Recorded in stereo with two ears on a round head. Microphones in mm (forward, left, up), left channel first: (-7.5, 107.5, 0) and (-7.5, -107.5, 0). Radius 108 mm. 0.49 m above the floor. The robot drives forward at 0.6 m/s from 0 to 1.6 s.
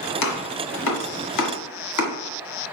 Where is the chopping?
80° left, 1.7 m; by 2.1 s 75° left (ahead or behind), 1.7 m.